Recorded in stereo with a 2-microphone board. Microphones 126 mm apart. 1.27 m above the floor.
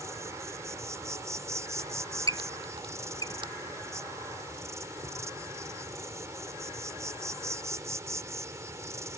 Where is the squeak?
40° right (ahead or behind).